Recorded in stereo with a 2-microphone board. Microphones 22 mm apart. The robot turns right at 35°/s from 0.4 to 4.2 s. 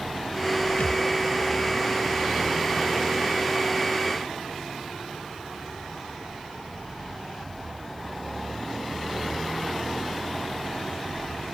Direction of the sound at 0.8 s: 90° left.